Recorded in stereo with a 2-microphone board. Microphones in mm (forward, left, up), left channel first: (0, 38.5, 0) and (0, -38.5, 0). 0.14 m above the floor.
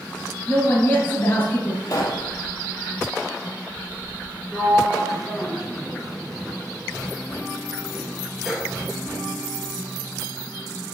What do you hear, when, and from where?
0.5 s a woman speaking: 30° left (ahead or behind), 2 m
1.8 s a pop: 50° left (ahead or behind), 1.2 m
4.5 s a sliding door: 5° right (ahead or behind), 0.8 m